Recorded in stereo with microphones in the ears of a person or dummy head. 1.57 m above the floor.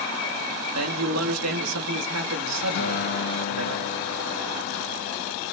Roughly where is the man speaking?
Right.